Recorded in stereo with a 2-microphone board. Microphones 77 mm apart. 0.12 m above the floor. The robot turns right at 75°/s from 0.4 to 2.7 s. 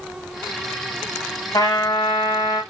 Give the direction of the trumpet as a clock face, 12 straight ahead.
10 o'clock.